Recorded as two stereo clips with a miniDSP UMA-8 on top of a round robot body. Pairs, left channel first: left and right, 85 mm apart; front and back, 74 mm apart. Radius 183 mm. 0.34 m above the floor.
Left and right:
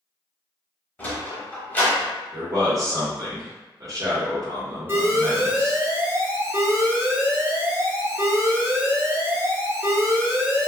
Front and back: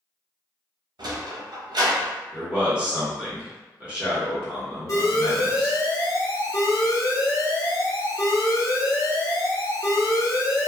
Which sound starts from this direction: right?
A man speaking, at 2.3 s.